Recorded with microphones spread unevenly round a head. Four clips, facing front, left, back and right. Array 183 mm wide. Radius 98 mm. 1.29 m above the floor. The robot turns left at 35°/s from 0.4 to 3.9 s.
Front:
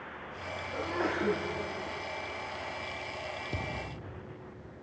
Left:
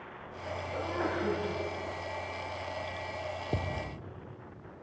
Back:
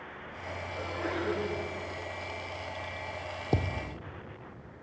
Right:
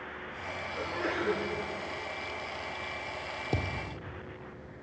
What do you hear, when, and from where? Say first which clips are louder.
0.7 s a sneeze: left 1 dB, front 3 dB; 45° left, 8.5 m; by 1.4 s 25° left, 8.5 m
3.5 s a thud: even, back 5 dB; straight behind, 1.6 m; by 4.0 s 170° left, 1.6 m